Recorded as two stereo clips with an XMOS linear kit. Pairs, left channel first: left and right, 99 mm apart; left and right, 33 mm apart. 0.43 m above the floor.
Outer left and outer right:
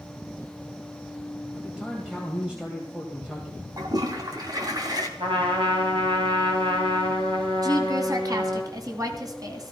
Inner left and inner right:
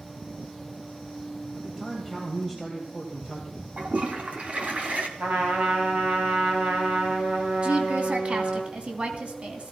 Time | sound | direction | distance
1.6 | a man speaking | 10° right (ahead or behind) | 2.5 m
3.8 | a toilet flushing | 45° right (ahead or behind) | 2 m
5.2 | a trumpet | 70° right (ahead or behind) | 3.5 m
7.6 | a woman speaking | 45° right (ahead or behind) | 2.5 m